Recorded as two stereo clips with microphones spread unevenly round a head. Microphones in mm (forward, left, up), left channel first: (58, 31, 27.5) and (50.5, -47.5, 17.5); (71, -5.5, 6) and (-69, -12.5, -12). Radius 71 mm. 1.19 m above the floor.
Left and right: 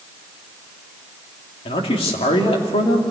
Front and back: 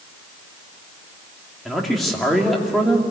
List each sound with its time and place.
1.6 s a man speaking: 90° left, 2.5 m